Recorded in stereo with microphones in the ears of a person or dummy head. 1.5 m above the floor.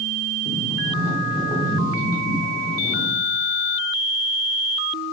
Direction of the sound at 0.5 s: 10° left (ahead or behind).